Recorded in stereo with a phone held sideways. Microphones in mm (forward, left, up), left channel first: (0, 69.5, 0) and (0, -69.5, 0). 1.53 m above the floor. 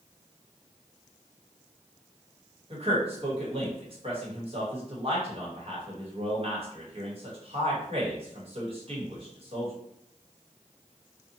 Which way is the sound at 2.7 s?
45° right (ahead or behind).